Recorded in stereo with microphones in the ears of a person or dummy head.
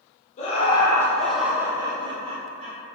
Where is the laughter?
40° left (ahead or behind), 0.8 m; by 2.8 s 40° right (ahead or behind), 1.2 m.